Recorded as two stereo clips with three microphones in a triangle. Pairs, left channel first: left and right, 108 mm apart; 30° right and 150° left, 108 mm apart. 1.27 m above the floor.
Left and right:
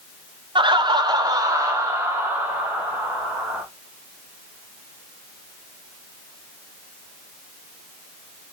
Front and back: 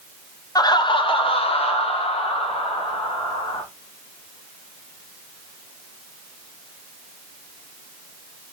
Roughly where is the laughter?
Right.